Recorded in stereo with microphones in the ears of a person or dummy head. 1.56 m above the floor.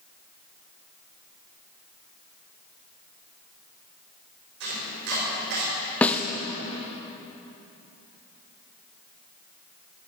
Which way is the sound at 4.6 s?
65° right (ahead or behind).